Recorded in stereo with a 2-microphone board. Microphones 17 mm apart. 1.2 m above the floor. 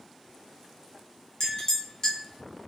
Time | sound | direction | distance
1.4 | a clink | 40° left (ahead or behind) | 0.7 m